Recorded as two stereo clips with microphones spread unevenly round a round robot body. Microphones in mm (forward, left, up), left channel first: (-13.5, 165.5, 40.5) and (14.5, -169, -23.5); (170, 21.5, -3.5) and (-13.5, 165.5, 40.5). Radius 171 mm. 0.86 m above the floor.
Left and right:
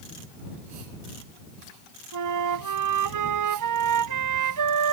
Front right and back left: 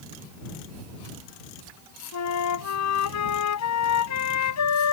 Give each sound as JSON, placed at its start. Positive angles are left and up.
{"t": 2.1, "sound": "a flute", "azimuth_deg": -45}